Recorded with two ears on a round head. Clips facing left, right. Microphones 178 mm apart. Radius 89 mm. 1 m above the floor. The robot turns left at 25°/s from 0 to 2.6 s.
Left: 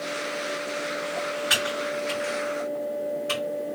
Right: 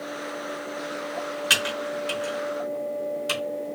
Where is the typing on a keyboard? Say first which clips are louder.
Left 1 dB; 45° right (ahead or behind), 1.2 m; by 3.4 s 50° right (ahead or behind), 1.2 m.